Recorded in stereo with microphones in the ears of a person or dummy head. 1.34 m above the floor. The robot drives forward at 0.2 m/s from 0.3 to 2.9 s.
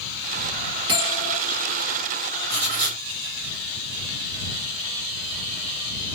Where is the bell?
20° right (ahead or behind), 1.5 m.